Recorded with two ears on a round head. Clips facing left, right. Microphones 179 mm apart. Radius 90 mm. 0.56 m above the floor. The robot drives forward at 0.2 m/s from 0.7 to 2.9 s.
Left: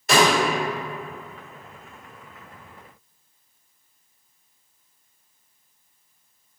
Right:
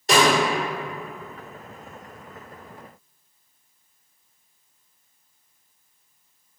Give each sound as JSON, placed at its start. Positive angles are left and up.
{"t": 0.1, "sound": "a snare drum", "side_deg": -30, "distance_m": 1.7}